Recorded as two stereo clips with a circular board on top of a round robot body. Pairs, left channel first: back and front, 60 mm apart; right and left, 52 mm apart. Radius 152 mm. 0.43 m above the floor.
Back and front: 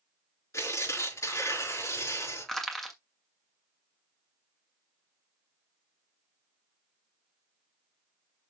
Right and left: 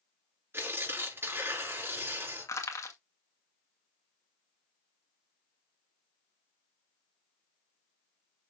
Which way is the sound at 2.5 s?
95° right.